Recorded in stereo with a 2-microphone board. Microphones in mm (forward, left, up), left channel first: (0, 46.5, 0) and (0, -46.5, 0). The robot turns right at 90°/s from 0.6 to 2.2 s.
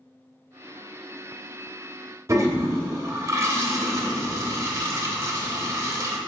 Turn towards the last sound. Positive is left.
turn(degrees=-35)  # may be behind; listen again after turning